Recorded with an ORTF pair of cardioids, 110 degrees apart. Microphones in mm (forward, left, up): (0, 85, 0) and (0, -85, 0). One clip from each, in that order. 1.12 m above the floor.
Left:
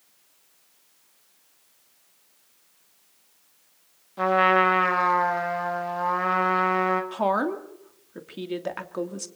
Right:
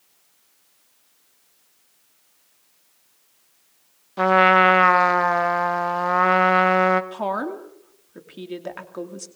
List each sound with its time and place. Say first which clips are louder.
4.2 s a trumpet: right 5 dB; 40° right, 1.9 m
7.1 s a woman speaking: left 2 dB; 15° left, 2.5 m